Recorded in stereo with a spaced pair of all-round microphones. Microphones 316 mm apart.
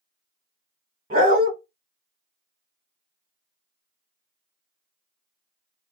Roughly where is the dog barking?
Right.